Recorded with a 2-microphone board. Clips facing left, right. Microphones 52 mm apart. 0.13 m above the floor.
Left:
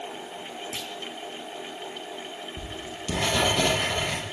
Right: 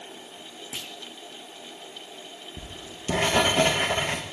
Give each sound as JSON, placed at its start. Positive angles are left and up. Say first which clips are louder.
{"t": 0.7, "sound": "a clunk", "louder": "left 3 dB", "side_deg": -15, "distance_m": 2.5}
{"t": 2.6, "sound": "writing", "louder": "left 5 dB", "side_deg": -30, "distance_m": 7.5}